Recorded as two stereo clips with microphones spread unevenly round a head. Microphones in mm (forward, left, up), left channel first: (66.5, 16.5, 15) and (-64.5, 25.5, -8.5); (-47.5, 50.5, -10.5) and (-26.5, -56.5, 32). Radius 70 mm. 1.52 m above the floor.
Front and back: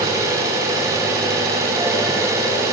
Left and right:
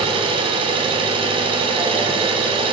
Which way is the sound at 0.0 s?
110° right.